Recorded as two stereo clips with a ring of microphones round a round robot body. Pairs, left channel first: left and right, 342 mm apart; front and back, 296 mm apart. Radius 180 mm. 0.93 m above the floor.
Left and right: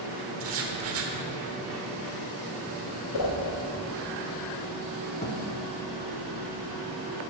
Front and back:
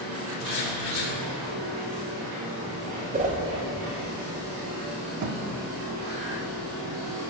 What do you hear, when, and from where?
0.4 s writing: 40° right, 1.2 m
3.1 s a whoosh: 120° left, 1.5 m
5.2 s a thud: 160° left, 1.0 m